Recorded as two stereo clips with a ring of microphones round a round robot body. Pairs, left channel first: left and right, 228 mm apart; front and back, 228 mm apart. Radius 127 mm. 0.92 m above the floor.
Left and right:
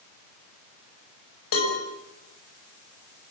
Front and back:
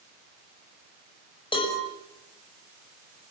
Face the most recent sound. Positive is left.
turn(degrees=70)